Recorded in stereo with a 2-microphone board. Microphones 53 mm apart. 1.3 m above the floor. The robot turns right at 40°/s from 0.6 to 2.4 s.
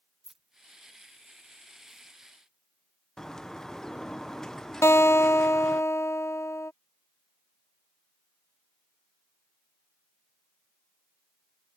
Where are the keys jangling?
5° right (ahead or behind); by 2.1 s 45° right (ahead or behind).